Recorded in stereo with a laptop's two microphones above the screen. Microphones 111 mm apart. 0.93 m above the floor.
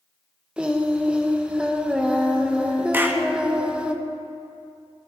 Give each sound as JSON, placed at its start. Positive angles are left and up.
{"t": 0.6, "sound": "singing", "side_deg": -10, "distance_m": 0.7}
{"t": 2.9, "sound": "a clap", "side_deg": -20, "distance_m": 0.7}